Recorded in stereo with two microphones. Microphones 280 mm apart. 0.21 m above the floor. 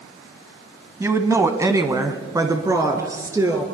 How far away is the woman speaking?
About 1.3 m.